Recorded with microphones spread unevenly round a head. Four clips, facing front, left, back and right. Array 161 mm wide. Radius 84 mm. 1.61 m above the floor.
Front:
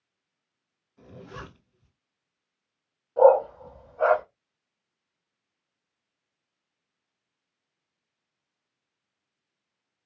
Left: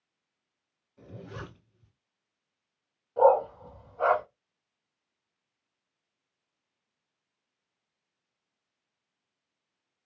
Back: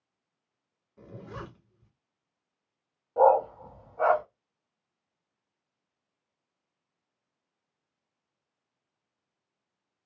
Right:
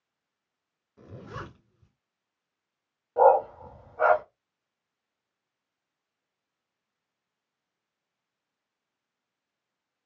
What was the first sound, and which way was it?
A zipper, 140° right.